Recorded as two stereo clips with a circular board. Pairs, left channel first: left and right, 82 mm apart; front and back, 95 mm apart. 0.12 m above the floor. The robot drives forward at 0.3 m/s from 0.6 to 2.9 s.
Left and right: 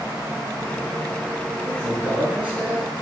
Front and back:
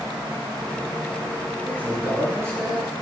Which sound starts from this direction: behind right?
A man speaking, at 1.6 s.